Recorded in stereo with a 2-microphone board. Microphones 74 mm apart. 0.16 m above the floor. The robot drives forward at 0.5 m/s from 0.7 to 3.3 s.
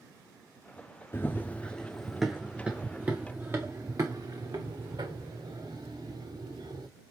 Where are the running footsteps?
35° left (ahead or behind), 0.6 m; by 6.9 s 75° right (ahead or behind), 1.7 m.